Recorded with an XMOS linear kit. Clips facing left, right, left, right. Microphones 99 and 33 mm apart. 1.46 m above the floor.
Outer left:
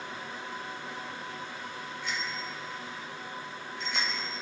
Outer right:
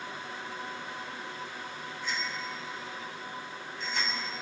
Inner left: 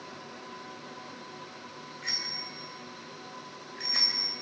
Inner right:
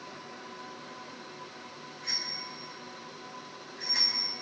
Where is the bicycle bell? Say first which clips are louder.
Outer right 1 dB, inner left 1 dB; 85° left, 4 m; by 4.4 s 75° left (ahead or behind), 6 m.